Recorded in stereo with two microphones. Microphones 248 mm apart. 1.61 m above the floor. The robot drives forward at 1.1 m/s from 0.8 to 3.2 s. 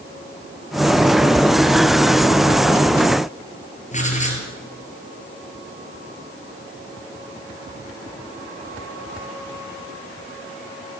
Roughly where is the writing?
Left.